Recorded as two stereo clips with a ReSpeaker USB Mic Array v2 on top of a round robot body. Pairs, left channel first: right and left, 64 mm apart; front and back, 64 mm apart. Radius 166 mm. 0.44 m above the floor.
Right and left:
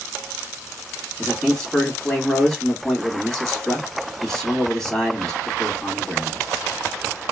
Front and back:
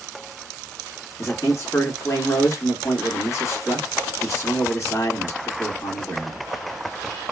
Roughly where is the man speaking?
Ahead.